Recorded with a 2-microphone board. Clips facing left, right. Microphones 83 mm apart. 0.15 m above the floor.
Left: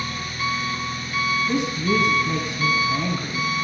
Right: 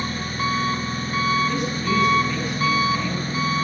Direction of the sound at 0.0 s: 35° right (ahead or behind).